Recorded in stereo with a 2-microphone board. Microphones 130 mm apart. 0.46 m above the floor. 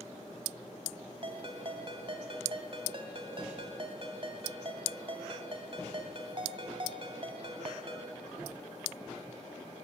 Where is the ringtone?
45° right (ahead or behind), 2 m.